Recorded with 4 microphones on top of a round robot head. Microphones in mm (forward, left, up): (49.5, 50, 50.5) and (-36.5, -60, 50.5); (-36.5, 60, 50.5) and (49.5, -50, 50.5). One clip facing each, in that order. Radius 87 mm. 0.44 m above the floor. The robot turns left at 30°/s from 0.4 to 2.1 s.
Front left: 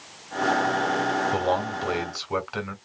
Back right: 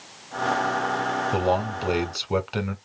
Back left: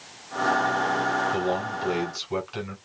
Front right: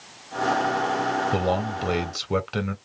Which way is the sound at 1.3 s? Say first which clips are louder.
Back right 1 dB, front right 2 dB; 40° right.